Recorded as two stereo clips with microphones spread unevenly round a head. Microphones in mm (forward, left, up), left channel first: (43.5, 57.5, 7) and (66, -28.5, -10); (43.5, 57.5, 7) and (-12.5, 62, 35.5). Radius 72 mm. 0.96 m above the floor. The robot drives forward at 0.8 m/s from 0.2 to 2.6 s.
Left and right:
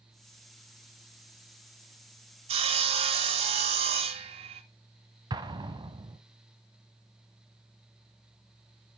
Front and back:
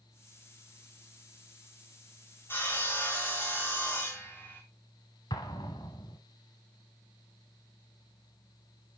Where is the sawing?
95° right, 1.1 m; by 4.6 s 100° right, 1.1 m.